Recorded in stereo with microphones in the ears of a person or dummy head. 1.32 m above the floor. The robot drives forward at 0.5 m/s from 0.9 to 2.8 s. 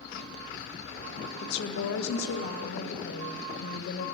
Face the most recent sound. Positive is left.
turn(degrees=55)  # may be behind; listen again after turning